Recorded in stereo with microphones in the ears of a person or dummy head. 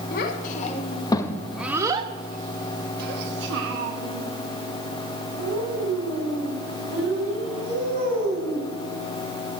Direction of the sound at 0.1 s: 50° left (ahead or behind).